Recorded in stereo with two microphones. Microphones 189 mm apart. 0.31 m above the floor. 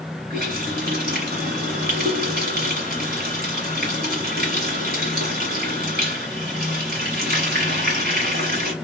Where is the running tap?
60° right (ahead or behind), 1.7 m.